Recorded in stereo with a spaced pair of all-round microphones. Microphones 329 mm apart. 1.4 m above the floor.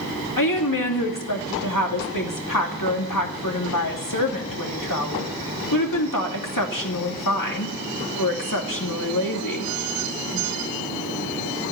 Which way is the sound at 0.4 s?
75° left (ahead or behind).